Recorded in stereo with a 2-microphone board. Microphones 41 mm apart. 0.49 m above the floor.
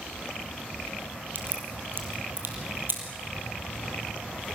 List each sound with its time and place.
1.4 s a crack: 55° right (ahead or behind), 3.5 m